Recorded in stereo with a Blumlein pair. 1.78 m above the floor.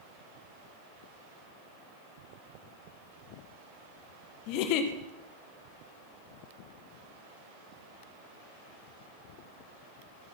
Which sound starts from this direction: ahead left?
A giggle, at 4.5 s.